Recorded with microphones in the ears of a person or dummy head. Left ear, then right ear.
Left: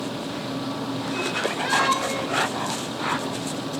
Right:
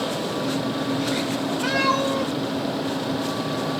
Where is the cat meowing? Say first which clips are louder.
Right 1 dB; 55° right (ahead or behind), 1.4 m; by 3.8 s 35° right (ahead or behind), 1.4 m.